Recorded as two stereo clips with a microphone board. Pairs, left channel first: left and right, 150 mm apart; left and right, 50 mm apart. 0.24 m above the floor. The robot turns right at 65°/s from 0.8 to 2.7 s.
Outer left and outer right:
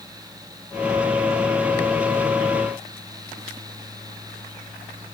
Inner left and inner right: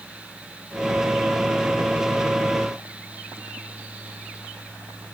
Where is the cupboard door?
I don't hear a cupboard door.